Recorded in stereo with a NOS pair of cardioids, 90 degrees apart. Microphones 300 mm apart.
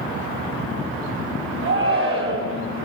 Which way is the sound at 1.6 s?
45° right.